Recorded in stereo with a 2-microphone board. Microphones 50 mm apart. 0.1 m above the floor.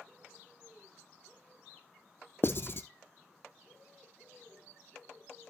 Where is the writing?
45° left (ahead or behind), 0.5 m.